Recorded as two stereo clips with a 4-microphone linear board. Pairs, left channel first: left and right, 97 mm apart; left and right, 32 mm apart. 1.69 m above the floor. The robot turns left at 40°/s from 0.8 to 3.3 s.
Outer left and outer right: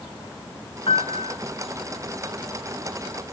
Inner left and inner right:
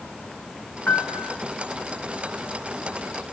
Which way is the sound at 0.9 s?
65° left (ahead or behind).